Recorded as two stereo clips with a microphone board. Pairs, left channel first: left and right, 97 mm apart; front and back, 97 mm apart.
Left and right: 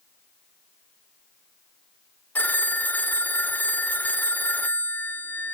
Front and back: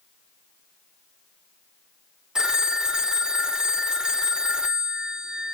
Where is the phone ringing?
110° left.